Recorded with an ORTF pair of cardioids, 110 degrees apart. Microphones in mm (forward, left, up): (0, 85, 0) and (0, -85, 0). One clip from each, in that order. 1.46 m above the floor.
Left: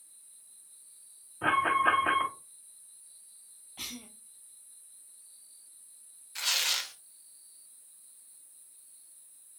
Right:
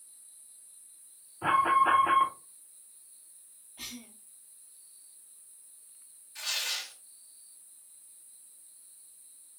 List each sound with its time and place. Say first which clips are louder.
1.4 s an alarm: right 2 dB; 40° left, 3 m
3.8 s a cough: left 2 dB; 40° left, 0.9 m
6.3 s tearing paper: left 4 dB; 50° left, 0.9 m